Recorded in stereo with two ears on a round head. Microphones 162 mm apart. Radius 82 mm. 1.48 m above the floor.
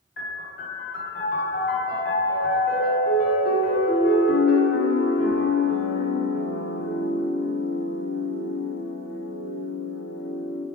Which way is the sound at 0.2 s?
55° left (ahead or behind).